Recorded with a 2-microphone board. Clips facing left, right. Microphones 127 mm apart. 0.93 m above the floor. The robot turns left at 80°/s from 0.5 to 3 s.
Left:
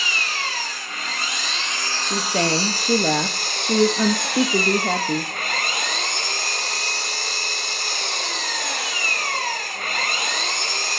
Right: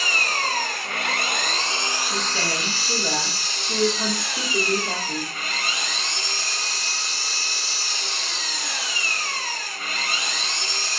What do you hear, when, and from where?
0.0 s an engine running: 50° right, 1.0 m; by 11.0 s 110° left, 1.0 m
2.0 s a woman speaking: 145° left, 0.9 m; by 5.3 s 70° left, 0.9 m